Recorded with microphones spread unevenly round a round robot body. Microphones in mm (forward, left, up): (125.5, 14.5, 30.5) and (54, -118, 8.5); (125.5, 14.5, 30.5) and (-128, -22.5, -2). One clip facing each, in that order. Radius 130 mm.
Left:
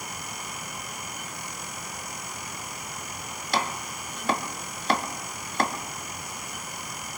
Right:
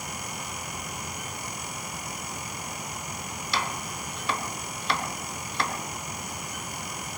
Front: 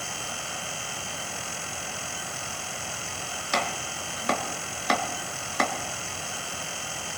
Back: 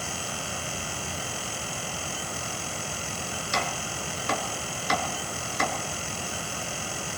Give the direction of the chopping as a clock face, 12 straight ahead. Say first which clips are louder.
Left 3 dB, front 3 dB; 11 o'clock.